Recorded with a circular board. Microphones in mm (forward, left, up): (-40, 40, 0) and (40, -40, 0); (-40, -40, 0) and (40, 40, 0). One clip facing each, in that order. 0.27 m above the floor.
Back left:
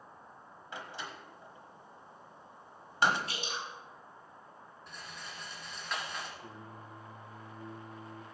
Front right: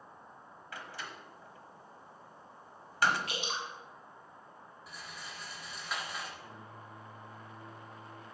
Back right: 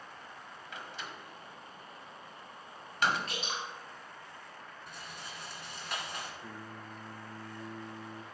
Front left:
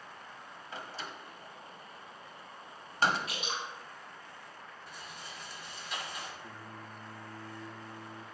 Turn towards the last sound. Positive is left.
turn(degrees=-160)